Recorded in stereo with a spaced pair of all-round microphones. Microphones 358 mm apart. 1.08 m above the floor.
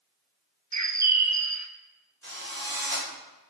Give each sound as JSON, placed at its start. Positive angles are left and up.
{"t": 0.7, "sound": "a bird", "side_deg": -50, "distance_m": 0.8}
{"t": 2.2, "sound": "a drill", "side_deg": -30, "distance_m": 4.5}